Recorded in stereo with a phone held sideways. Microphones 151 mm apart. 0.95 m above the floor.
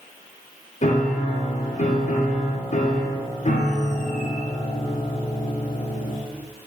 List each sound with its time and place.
0.8 s a piano: 55° left (ahead or behind), 0.6 m